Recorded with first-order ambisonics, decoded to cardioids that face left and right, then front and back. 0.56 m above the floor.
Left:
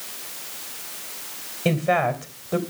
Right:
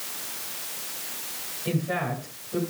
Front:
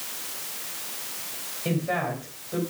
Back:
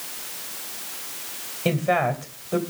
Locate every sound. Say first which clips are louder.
1.6 s a woman speaking: left 8 dB, back 6 dB; 120° left, 3 m